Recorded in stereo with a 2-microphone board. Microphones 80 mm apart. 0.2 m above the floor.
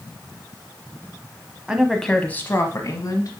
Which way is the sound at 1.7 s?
10° right (ahead or behind).